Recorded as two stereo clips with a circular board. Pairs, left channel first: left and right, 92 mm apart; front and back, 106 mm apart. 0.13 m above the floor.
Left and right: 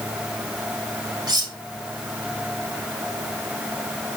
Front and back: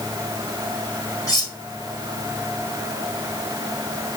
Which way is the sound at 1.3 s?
55° right.